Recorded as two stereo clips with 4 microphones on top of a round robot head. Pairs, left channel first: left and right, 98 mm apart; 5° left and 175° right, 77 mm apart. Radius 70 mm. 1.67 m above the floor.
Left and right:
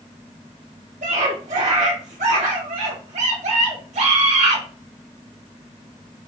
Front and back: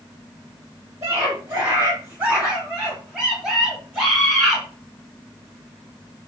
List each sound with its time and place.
1.0 s a scream: 110° right, 2.5 m; by 4.6 s 80° right, 3.5 m